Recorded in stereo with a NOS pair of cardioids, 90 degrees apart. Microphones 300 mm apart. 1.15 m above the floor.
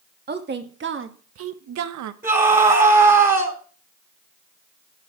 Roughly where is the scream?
Ahead right.